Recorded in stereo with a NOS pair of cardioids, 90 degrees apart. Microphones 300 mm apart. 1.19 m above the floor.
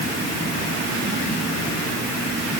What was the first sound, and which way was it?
Only background noise.